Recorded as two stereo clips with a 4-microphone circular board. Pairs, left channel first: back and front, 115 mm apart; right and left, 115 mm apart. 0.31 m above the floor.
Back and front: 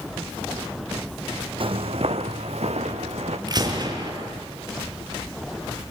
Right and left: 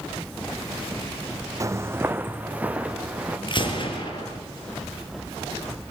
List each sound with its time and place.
1.6 s footsteps: 30° left, 0.8 m; by 3.4 s 10° left, 2.5 m
3.5 s a gunshot: 50° right, 4.5 m